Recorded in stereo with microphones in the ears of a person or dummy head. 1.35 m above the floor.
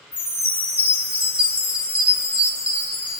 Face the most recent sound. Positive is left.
turn(degrees=-5)  # may be behind; listen again after turning